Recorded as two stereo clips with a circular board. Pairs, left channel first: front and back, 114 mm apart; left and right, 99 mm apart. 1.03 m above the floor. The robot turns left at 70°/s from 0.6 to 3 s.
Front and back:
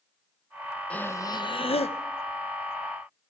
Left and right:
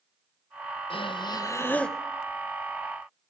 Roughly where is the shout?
No shout in this recording.